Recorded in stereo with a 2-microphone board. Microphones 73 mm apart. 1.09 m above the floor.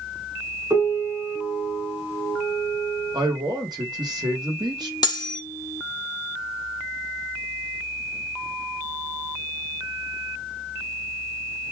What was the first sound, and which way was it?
A piano, 40° right (ahead or behind).